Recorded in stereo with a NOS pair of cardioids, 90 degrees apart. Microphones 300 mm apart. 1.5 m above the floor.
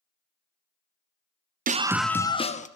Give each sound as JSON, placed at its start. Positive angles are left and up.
{"t": 1.7, "sound": "a scream", "azimuth_deg": -30, "distance_m": 0.5}